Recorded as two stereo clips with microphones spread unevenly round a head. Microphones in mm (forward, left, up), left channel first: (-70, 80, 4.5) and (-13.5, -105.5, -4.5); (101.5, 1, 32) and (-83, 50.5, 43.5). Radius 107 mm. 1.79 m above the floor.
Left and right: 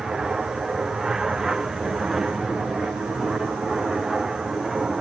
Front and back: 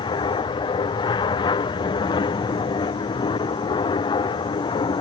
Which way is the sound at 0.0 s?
10° left.